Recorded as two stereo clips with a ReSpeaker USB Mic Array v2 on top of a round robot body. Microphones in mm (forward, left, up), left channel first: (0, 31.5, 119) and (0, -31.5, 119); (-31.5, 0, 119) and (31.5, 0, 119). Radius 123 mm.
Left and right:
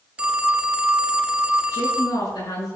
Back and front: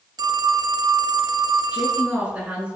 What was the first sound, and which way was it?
A phone ringing, 15° right.